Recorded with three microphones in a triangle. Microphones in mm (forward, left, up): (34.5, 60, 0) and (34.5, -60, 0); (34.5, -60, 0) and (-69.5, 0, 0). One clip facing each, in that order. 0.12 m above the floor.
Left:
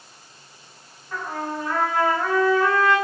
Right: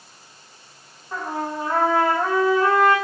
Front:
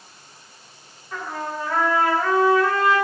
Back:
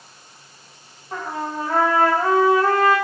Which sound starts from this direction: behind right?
A trumpet, at 1.1 s.